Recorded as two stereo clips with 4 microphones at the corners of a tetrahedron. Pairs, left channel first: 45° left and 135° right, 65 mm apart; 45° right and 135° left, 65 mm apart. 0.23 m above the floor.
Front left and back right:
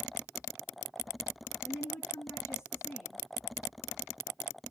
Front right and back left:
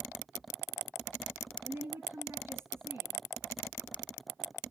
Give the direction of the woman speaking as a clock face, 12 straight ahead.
9 o'clock.